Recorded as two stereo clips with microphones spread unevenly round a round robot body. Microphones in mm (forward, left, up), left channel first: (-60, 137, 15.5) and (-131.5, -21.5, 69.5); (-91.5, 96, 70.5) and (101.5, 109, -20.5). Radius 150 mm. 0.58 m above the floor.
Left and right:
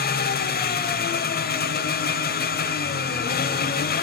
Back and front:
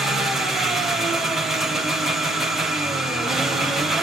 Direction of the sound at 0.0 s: 85° left.